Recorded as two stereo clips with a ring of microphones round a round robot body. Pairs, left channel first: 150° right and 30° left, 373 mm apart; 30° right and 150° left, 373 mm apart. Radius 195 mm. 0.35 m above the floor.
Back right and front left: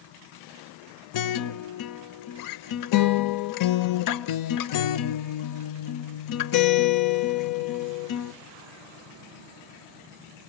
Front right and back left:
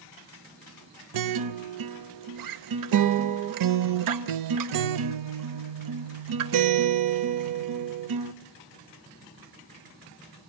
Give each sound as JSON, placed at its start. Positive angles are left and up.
{"t": 1.1, "sound": "a guitar", "azimuth_deg": 180, "distance_m": 0.8}